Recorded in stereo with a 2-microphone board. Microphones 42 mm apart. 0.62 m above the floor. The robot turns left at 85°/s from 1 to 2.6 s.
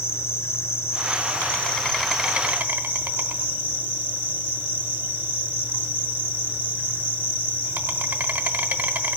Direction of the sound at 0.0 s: 95° left.